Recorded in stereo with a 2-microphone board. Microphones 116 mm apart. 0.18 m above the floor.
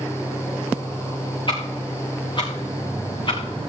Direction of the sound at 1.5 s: 45° left (ahead or behind).